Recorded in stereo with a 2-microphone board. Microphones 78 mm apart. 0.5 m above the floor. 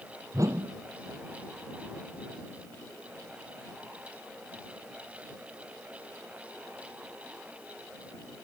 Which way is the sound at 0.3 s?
45° right (ahead or behind).